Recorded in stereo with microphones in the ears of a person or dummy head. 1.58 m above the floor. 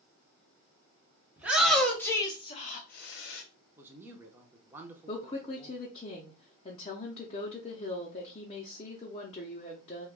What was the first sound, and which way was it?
A shout, 5° right (ahead or behind).